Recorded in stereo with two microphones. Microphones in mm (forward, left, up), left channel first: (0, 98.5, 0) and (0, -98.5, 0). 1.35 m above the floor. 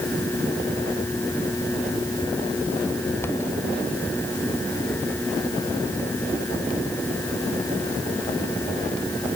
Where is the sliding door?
I don't hear a sliding door.